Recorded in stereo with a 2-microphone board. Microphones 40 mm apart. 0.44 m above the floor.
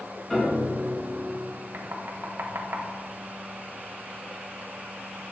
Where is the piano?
20° left (ahead or behind), 3.5 m.